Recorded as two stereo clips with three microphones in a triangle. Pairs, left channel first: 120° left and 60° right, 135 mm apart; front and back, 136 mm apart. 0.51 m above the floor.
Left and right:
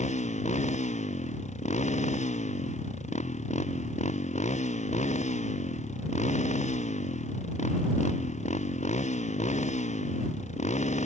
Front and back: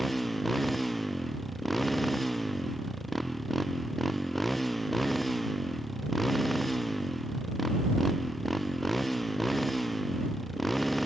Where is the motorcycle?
90° left.